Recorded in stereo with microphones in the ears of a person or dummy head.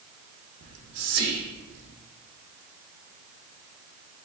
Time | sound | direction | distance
0.6 | whispering | 65° right (ahead or behind) | 0.7 m